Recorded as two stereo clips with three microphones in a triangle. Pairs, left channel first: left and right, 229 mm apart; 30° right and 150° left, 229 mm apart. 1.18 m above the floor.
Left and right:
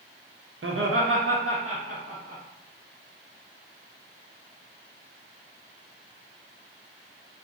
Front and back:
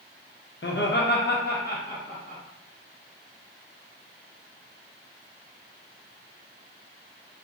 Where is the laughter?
65° right, 0.6 m; by 2.4 s 85° right, 1.5 m.